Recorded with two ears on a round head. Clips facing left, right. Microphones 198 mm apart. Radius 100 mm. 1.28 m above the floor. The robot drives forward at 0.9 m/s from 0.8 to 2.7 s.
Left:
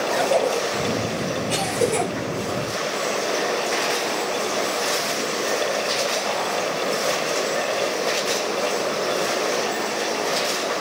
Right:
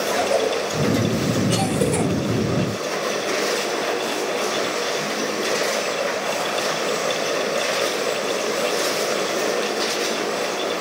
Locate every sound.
0.1 s a cough: 5° right (ahead or behind), 9.5 m